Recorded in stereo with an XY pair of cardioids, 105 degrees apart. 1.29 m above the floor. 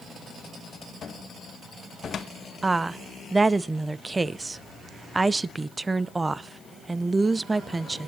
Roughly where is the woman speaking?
Ahead right.